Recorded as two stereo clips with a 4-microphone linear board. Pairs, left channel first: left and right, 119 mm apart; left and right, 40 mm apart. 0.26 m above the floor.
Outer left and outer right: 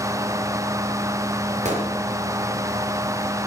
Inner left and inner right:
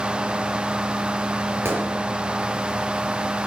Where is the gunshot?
75° right (ahead or behind), 4 m.